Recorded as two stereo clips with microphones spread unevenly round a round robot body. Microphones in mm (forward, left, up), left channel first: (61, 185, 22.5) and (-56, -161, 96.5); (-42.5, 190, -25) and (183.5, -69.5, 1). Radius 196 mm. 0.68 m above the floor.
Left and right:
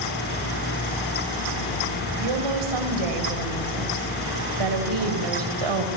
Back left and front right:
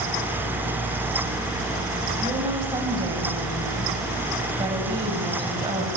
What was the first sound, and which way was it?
A woman speaking, 130° right.